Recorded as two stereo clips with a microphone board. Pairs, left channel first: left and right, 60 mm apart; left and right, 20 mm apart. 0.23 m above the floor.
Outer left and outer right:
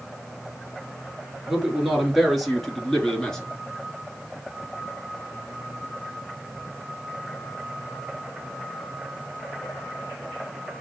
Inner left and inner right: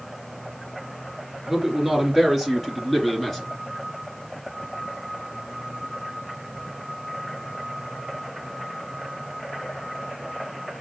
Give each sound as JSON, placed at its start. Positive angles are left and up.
{"t": 1.5, "sound": "a man speaking", "side_deg": -5, "distance_m": 3.0}